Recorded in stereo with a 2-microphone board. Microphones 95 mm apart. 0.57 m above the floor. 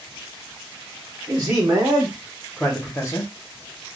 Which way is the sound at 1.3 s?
40° right (ahead or behind).